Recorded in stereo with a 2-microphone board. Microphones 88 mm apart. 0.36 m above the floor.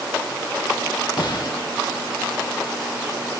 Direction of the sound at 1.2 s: 55° left (ahead or behind).